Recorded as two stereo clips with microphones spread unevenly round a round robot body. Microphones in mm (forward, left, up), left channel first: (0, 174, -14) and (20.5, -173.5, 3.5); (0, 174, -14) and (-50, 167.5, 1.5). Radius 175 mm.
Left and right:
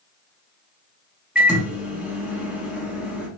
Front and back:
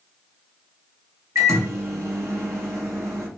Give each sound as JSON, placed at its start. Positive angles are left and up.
{"t": 1.4, "sound": "a microwave", "azimuth_deg": -175, "distance_m": 1.1}